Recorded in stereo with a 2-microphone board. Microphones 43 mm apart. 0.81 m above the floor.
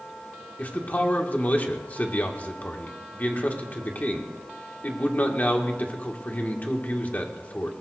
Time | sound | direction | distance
0.6 | a man speaking | 40° left (ahead or behind) | 1.9 m